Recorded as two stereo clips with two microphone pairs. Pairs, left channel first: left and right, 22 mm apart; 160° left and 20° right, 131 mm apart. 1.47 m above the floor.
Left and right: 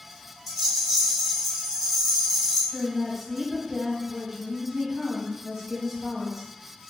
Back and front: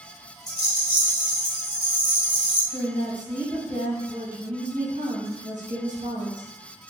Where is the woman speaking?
Straight ahead, 1.2 m.